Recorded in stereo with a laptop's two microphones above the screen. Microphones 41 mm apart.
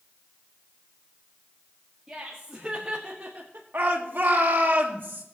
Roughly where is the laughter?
Centre.